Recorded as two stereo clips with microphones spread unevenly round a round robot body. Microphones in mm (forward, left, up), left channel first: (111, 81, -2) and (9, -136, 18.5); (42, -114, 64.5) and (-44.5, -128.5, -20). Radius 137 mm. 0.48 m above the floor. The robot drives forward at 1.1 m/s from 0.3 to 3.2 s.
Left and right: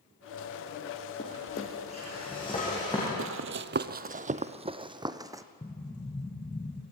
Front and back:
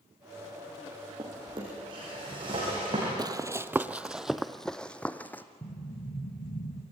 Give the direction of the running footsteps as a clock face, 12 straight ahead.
3 o'clock.